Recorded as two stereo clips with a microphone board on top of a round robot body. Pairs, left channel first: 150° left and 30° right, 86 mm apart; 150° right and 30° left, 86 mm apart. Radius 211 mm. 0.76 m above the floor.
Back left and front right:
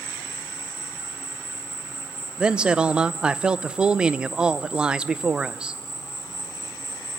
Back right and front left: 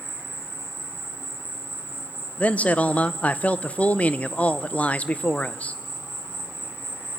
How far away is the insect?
About 2.5 m.